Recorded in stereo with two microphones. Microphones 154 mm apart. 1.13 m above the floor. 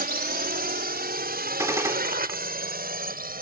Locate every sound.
0.0 s a drone: 65° right (ahead or behind); by 3.4 s 60° right (ahead or behind)
1.6 s a gunshot: 20° right (ahead or behind)